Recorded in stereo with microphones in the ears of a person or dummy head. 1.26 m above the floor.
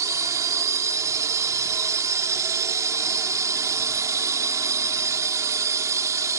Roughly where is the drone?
Centre.